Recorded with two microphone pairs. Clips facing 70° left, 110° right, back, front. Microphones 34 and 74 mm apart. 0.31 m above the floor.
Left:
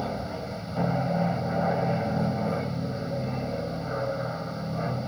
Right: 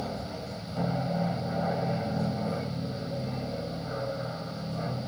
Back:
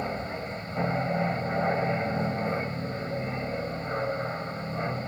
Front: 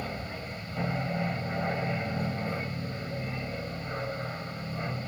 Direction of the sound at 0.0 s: 130° left.